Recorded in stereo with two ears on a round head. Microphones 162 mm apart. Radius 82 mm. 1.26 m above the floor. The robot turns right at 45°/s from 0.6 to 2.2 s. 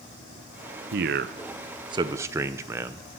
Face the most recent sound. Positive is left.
turn(degrees=-15)  # may be behind; listen again after turning